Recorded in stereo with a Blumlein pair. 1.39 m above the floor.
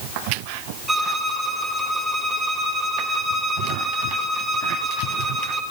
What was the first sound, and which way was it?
A violin, 15° right.